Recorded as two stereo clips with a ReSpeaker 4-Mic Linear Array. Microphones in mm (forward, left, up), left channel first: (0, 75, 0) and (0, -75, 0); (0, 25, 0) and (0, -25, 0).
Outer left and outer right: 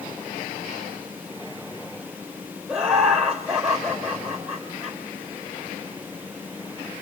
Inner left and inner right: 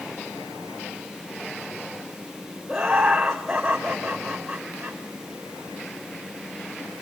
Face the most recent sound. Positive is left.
turn(degrees=-5)  # may be behind; listen again after turning